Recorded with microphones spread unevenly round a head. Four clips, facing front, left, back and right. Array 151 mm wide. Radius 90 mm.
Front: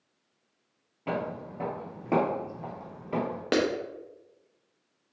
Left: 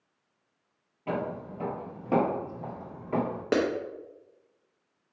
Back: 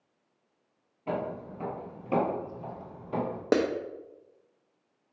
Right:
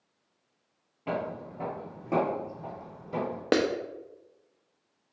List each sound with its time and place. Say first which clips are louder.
1.1 s footsteps: left 1 dB, front 1 dB; 50° right, 1.3 m; by 3.4 s 45° left, 1.5 m
3.5 s a clap: right 1 dB, back 1 dB; 135° right, 0.5 m